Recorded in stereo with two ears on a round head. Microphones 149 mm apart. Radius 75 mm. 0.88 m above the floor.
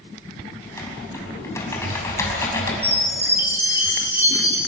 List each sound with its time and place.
0.6 s typing on a keyboard: 15° left (ahead or behind), 5.5 m
2.8 s a chime: 15° right (ahead or behind), 6.5 m